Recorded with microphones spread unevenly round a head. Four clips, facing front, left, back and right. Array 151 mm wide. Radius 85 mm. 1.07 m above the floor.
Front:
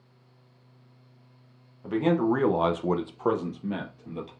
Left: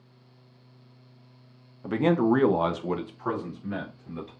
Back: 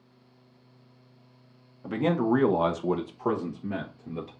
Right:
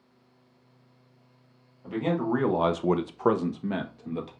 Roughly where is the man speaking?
Left.